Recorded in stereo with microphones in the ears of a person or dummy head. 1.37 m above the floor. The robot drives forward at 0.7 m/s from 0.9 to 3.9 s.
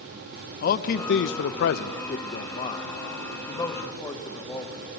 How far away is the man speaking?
About 0.6 m.